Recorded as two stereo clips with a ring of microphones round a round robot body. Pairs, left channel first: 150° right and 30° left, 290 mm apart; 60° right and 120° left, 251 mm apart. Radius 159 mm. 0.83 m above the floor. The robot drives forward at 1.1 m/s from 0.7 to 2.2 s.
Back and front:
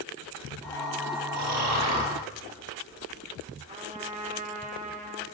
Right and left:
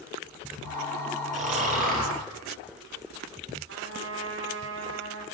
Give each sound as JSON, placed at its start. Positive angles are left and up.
{"t": 1.3, "sound": "snoring", "azimuth_deg": 60, "distance_m": 6.5}
{"t": 3.7, "sound": "a trumpet", "azimuth_deg": 95, "distance_m": 3.5}